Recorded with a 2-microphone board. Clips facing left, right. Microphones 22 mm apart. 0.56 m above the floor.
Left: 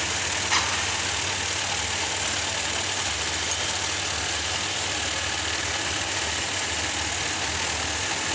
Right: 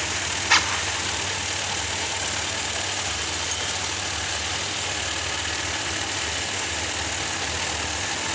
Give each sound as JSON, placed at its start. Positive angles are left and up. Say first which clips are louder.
{"t": 0.5, "sound": "a zipper", "louder": "right 6 dB", "side_deg": -55, "distance_m": 2.0}